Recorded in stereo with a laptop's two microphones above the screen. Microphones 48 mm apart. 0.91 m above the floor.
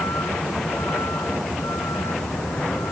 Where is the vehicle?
90° left.